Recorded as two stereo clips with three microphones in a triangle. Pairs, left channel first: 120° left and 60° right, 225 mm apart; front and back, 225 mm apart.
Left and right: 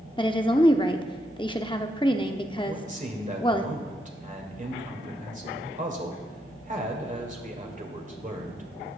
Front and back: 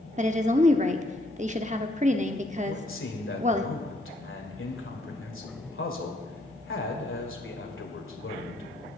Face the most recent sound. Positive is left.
turn(degrees=-10)